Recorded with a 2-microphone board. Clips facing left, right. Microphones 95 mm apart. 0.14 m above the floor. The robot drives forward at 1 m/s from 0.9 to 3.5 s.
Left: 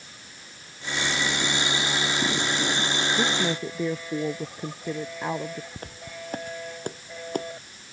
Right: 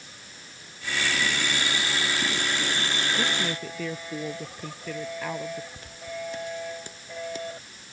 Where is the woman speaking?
20° left (ahead or behind).